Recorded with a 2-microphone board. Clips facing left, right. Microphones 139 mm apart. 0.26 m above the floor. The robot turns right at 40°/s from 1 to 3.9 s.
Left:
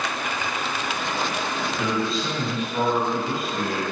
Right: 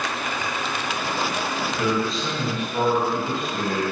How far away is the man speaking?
About 1.0 m.